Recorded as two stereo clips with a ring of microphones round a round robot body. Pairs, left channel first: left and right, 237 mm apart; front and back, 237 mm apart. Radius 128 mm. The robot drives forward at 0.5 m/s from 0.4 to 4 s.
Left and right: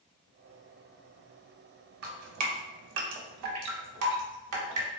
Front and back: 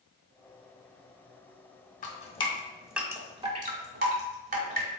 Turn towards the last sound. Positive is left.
turn(degrees=-130)